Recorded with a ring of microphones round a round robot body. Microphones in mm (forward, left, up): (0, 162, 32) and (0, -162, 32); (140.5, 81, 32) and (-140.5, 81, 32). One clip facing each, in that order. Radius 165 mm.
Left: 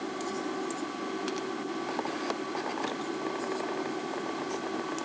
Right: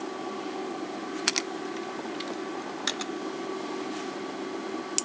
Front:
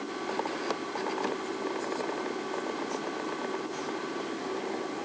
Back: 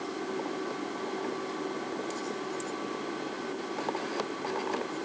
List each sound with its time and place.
Only background noise.